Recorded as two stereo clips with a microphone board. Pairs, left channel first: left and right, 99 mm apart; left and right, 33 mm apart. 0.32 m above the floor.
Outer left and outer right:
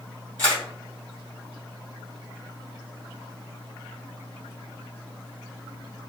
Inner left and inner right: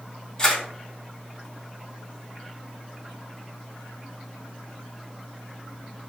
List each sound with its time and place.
0.4 s a camera shutter: 20° left (ahead or behind), 2.0 m